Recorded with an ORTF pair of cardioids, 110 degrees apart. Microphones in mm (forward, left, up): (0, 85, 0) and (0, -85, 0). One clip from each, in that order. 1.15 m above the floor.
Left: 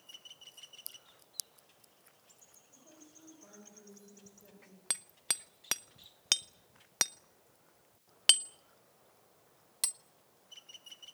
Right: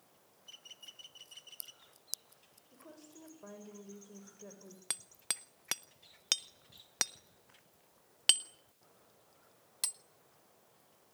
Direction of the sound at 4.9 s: 10° left.